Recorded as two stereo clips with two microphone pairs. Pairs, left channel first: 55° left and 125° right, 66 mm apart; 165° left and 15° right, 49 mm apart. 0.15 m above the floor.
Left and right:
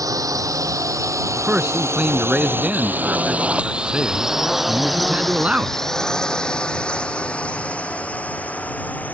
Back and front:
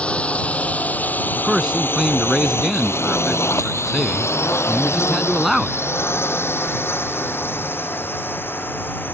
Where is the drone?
135° right; by 9.2 s 120° left.